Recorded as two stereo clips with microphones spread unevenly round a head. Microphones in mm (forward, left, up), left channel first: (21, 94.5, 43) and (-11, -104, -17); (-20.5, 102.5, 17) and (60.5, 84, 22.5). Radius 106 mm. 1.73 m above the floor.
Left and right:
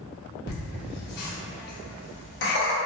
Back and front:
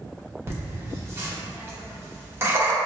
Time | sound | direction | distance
0.5 | laughter | 45° left | 1.2 m